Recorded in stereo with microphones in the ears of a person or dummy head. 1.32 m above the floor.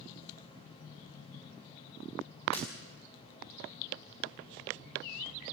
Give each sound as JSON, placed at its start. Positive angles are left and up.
{"t": 2.5, "sound": "breaking glass", "side_deg": 35, "distance_m": 5.0}